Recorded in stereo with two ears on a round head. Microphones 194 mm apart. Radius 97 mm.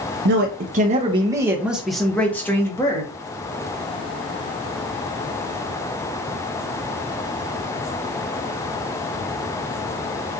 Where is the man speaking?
55° right (ahead or behind), 0.7 m; by 3.0 s 15° left (ahead or behind), 1.4 m.